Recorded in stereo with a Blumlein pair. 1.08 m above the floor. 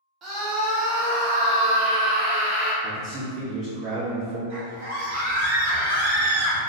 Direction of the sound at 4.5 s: 55° right.